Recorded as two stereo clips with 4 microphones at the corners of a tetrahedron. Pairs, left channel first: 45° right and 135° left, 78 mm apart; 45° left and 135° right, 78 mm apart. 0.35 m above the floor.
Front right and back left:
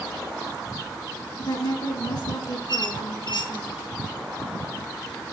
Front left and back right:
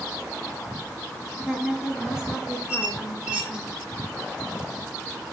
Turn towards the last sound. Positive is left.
turn(degrees=-60)